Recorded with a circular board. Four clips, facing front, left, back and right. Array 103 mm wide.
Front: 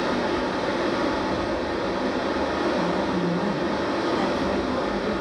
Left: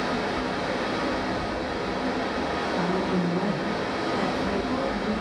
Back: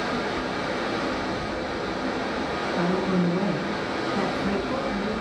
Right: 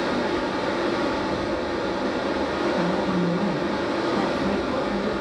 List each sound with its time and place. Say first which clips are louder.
0.0 s running water: right 3 dB, front 3 dB; 45° right, 1.3 m
2.8 s a woman speaking: right 2 dB, even; 175° right, 1.4 m